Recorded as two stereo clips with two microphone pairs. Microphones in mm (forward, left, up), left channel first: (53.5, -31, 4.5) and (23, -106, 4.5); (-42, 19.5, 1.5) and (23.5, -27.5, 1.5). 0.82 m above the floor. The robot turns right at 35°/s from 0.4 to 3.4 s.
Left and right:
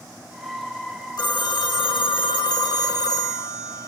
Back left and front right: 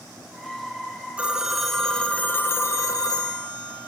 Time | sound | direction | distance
1.2 | a phone ringing | 40° left | 1.6 m